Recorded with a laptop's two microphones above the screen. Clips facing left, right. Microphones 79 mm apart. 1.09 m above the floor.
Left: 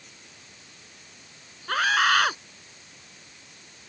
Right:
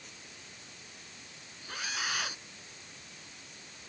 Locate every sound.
1.7 s a scream: 65° left (ahead or behind)